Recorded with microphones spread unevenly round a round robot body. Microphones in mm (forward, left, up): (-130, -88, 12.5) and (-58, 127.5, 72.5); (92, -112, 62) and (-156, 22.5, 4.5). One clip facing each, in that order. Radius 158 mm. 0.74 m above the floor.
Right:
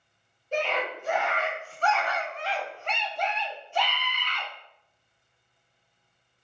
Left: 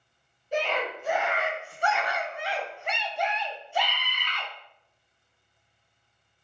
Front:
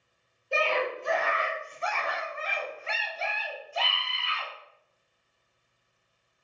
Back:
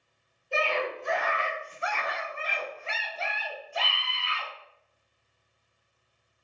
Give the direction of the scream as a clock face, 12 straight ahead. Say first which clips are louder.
Even, front 1 dB; 1 o'clock.